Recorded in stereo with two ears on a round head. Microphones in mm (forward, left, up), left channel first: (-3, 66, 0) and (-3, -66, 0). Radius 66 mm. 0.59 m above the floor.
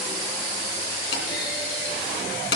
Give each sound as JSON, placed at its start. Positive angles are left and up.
{"t": 1.1, "sound": "a clunk", "side_deg": 75, "distance_m": 3.0}